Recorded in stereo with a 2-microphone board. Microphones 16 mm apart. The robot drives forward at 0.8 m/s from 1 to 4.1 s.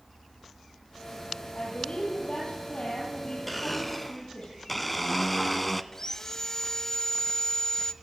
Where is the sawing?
25° left (ahead or behind), 1.0 m.